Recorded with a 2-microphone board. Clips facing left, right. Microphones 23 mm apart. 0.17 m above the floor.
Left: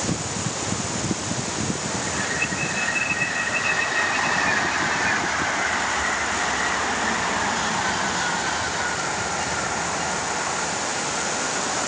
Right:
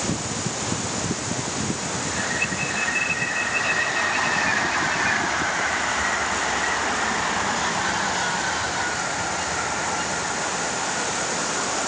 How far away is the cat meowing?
No cat meowing in this recording.